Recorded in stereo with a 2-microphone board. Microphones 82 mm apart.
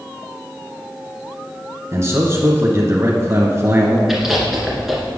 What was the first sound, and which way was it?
A man speaking, 35° right (ahead or behind).